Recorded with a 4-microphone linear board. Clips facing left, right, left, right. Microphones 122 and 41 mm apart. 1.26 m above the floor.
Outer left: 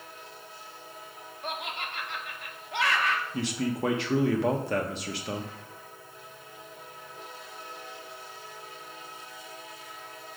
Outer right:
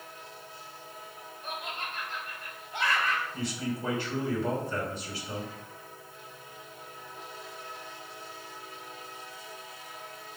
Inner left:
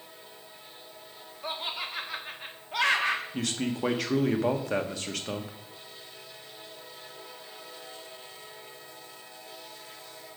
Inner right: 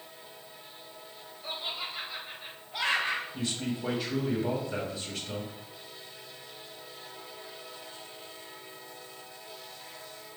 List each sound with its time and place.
1.4 s laughter: 75° left (ahead or behind), 1.5 m
3.3 s a man speaking: 75° left (ahead or behind), 1.2 m